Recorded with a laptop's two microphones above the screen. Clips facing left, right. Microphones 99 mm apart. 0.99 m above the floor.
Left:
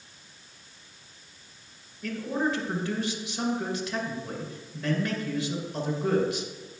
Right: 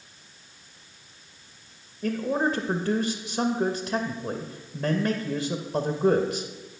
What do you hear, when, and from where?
2.0 s a man speaking: 35° right (ahead or behind), 0.6 m